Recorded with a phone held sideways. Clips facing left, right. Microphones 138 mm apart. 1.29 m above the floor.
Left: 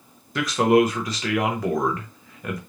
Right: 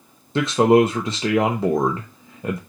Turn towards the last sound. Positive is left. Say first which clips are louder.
# right 3 dB
turn(degrees=-30)  # may be behind; listen again after turning